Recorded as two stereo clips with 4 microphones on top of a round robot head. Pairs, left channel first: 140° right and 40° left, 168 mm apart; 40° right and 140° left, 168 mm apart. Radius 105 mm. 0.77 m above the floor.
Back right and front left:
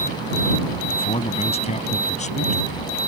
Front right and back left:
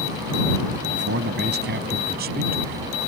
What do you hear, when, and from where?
0.9 s a man speaking: 160° left; by 3.0 s 175° left